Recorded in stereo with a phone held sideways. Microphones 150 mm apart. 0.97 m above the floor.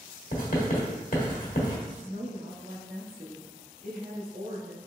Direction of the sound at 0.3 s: 65° left (ahead or behind).